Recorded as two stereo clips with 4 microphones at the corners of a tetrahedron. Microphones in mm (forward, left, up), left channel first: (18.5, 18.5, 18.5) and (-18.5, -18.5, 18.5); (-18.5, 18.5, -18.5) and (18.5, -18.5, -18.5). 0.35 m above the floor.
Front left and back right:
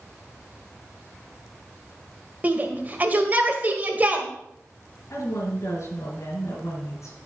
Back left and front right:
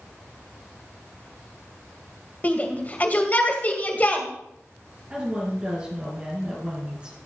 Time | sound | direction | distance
2.4 | a shout | straight behind | 2.0 m
5.1 | a woman speaking | 20° left | 3 m